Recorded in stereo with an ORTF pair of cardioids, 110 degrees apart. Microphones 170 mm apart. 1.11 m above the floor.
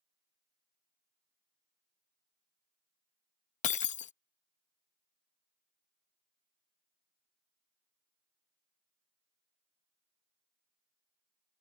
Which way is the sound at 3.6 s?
45° left.